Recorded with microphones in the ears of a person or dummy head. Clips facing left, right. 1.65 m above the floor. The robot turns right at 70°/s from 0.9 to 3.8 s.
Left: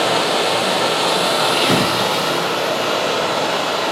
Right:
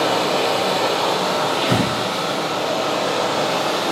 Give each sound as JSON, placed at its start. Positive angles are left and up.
{"t": 0.0, "sound": "running water", "azimuth_deg": 15, "distance_m": 0.7}
{"t": 1.6, "sound": "breathing", "side_deg": 40, "distance_m": 1.5}